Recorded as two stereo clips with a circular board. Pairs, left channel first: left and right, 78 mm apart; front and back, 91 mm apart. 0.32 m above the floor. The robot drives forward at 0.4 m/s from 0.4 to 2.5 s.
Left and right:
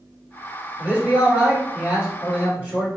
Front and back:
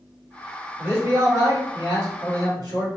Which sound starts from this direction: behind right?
A man speaking, at 0.8 s.